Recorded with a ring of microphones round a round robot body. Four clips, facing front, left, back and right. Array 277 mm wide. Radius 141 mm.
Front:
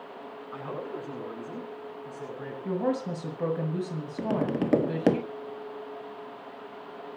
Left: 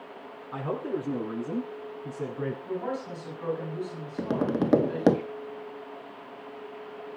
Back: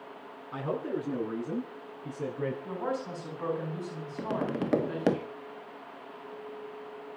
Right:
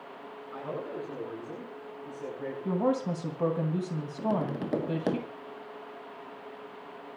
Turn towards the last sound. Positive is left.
turn(degrees=65)